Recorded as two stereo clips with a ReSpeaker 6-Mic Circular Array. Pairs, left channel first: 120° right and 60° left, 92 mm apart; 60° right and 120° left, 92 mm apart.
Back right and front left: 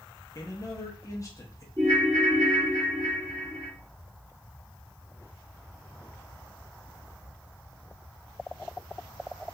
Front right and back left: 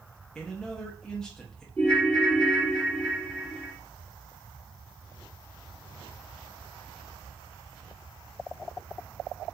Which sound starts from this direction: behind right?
A man speaking, at 0.3 s.